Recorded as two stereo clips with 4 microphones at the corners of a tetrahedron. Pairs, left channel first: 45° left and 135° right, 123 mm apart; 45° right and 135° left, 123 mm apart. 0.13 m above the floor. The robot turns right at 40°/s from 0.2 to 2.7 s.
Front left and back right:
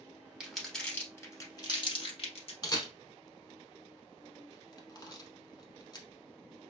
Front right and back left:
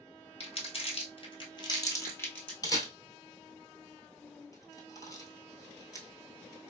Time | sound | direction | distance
0.4 | crumpling | 55° right | 1.0 m
2.6 | a camera shutter | straight ahead | 0.8 m